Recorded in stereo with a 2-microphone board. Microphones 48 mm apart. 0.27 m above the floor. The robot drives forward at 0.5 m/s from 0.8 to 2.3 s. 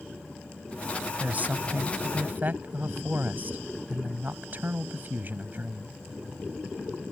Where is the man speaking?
35° right (ahead or behind); by 5.9 s 45° right (ahead or behind).